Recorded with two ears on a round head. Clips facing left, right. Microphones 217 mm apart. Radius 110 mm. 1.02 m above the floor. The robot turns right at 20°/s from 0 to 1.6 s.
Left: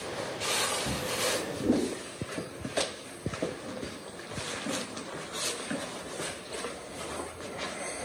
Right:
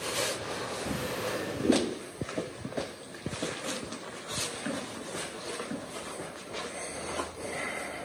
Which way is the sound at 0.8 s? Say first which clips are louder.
Even; 20° right (ahead or behind).